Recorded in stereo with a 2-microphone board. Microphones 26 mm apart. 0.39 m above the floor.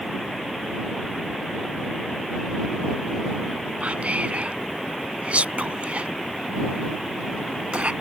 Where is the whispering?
60° right (ahead or behind).